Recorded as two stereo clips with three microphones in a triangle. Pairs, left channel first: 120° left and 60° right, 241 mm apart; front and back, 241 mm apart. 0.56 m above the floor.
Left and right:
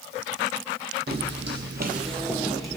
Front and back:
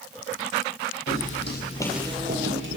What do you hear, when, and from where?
1.1 s footsteps: 15° right, 1.3 m; by 2.8 s 155° right, 1.4 m